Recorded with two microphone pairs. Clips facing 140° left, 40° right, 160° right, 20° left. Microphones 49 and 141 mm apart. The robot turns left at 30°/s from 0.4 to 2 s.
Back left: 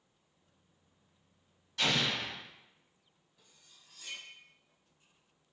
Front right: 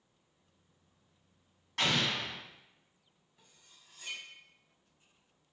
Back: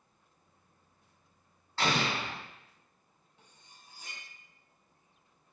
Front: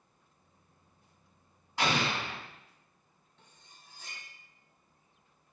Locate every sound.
1.8 s an explosion: 55° right, 1.6 m; by 2.4 s 65° right, 1.6 m
3.4 s cutlery clinking: 85° right, 1.1 m